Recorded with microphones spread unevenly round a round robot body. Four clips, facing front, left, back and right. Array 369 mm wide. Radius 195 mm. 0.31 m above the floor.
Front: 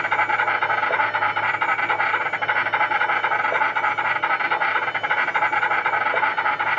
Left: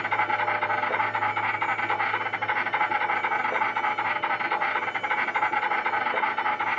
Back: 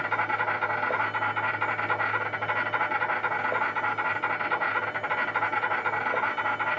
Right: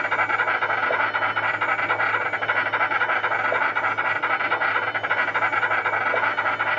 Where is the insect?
170° left, 1.6 m.